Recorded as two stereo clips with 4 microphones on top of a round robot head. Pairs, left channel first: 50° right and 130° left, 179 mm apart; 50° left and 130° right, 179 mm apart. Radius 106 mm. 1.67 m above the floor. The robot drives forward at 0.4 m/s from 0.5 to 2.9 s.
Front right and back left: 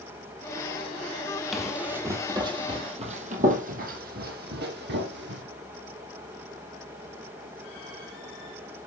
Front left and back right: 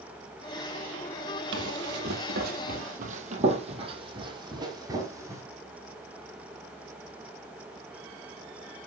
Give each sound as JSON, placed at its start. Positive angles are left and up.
{"t": 1.5, "sound": "running footsteps", "azimuth_deg": -140, "distance_m": 2.5}